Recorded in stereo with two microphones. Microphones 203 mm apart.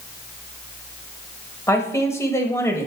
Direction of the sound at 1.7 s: 15° left (ahead or behind).